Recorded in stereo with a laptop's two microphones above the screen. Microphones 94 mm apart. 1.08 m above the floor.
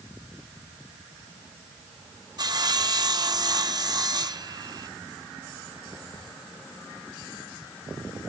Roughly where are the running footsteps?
No running footsteps in this recording.